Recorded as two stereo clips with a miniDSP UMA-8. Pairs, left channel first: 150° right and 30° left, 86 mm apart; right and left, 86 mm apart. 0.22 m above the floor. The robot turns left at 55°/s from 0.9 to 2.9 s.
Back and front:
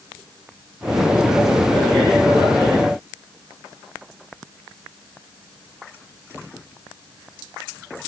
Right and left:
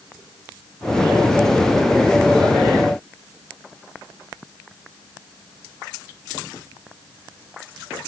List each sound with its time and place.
Only background noise.